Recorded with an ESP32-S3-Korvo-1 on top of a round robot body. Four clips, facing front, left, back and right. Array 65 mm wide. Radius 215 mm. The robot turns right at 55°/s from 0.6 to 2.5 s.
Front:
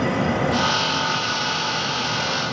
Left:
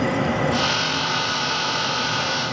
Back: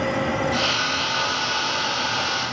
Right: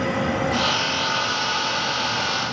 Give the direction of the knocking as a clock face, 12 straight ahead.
No knocking in this recording.